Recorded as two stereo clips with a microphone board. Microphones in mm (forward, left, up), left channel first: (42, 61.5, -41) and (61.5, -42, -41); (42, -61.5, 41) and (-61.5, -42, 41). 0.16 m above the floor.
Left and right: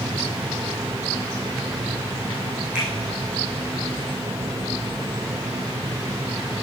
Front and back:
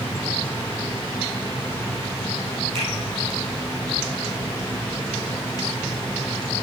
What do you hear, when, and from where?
2.8 s a finger snap: 160° right, 5 m